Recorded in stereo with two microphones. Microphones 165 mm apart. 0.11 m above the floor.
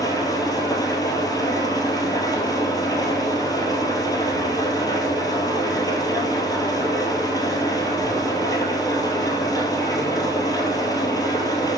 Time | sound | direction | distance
0.0 | an engine running | 20° left (ahead or behind) | 1.4 m